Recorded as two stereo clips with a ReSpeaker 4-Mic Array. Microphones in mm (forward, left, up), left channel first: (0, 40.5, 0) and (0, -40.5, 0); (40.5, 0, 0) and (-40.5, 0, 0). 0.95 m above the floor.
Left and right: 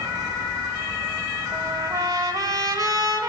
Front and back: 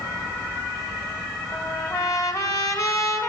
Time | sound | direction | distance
1.5 | a trumpet | 45° right | 3 m